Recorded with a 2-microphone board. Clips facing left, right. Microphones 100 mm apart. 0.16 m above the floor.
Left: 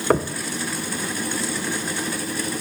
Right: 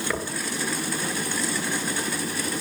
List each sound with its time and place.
0.1 s knocking: 50° left (ahead or behind), 2 m